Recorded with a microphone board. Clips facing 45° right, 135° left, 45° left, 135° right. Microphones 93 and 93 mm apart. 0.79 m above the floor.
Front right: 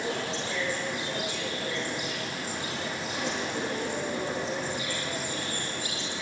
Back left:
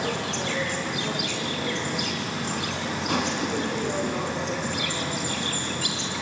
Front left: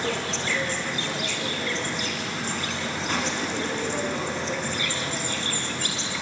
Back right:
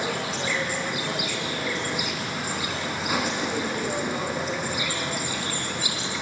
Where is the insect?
145° left, 3.5 m.